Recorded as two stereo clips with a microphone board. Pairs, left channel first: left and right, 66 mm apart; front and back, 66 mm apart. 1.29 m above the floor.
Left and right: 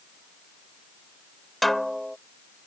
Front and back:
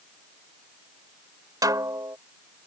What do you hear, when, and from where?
1.6 s a snare drum: straight behind